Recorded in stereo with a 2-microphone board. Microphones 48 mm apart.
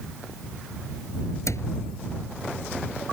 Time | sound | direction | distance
1.5 | a cupboard door | 80° left | ?